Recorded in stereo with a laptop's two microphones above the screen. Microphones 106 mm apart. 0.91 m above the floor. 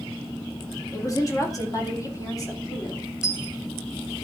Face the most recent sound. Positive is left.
turn(degrees=30)  # may be behind; listen again after turning